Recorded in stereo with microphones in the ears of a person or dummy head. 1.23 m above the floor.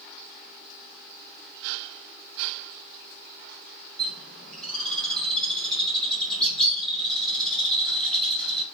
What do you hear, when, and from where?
4.0 s a bird: 5° left (ahead or behind), 4.5 m